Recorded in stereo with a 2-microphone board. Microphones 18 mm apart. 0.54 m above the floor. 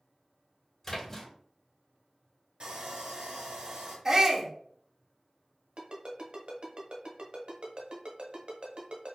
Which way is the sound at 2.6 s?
80° right.